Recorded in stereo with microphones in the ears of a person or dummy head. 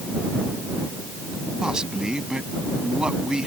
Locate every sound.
1.6 s a man speaking: centre (ahead or behind)